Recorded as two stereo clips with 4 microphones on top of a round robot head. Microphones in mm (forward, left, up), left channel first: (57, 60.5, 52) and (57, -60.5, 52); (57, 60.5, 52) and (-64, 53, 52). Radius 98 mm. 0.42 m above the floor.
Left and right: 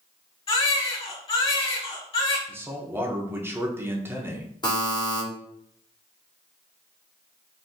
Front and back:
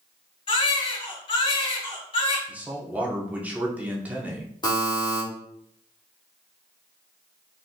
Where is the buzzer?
45° left, 1.4 m.